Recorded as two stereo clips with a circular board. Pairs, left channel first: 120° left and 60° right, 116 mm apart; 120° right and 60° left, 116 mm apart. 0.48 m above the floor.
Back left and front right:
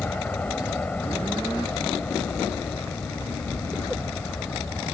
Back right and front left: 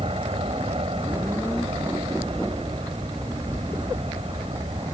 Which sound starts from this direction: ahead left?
An aircraft, at 0.0 s.